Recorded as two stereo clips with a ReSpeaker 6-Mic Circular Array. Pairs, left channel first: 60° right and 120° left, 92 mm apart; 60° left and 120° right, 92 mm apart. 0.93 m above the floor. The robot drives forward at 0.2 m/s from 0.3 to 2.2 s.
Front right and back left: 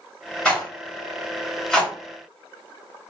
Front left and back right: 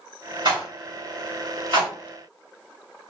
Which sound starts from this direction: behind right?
A rattle, at 0.5 s.